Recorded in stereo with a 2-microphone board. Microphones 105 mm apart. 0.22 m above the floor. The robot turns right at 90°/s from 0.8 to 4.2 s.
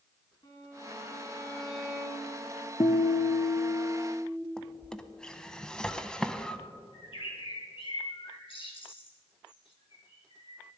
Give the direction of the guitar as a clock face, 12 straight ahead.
10 o'clock.